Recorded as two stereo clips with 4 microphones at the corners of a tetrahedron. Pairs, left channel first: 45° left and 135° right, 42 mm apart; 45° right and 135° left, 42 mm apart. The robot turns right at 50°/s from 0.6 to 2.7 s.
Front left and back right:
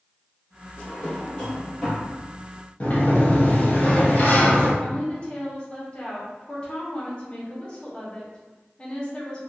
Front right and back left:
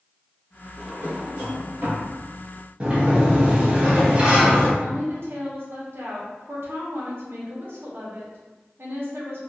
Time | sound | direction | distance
0.8 | a drawer | 85° left | 1.6 m
2.8 | a sliding door | 80° left | 0.7 m
4.8 | a woman speaking | 110° left | 0.8 m